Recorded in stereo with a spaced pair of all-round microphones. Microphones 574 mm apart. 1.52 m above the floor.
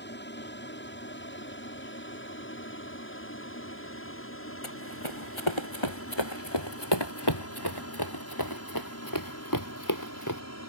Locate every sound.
0.0 s an aircraft: 20° left (ahead or behind); by 10.7 s 25° left (ahead or behind)
4.6 s running footsteps: 55° left (ahead or behind); by 10.4 s 30° left (ahead or behind)